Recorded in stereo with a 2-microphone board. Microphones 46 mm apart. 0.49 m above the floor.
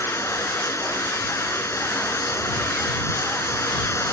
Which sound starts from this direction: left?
Running water, at 0.0 s.